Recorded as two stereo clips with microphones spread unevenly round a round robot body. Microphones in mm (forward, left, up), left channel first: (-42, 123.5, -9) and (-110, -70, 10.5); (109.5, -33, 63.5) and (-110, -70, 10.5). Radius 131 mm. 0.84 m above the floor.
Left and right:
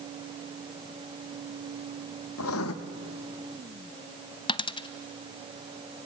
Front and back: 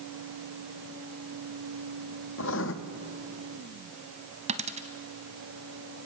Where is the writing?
55° left, 1.0 m.